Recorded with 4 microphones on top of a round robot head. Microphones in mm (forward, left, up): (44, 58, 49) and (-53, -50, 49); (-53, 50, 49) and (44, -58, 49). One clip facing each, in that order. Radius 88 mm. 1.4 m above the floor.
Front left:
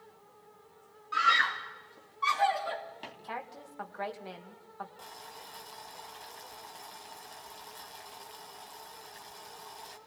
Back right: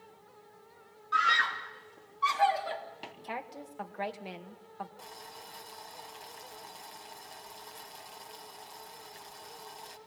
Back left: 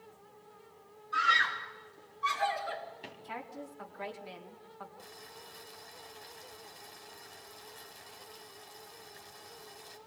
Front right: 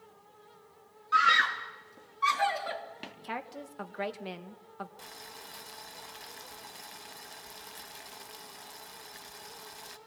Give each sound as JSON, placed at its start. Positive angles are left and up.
{"t": 1.1, "sound": "a scream", "azimuth_deg": -35, "distance_m": 3.0}
{"t": 3.2, "sound": "a woman speaking", "azimuth_deg": -60, "distance_m": 2.0}
{"t": 5.0, "sound": "boiling", "azimuth_deg": -45, "distance_m": 2.0}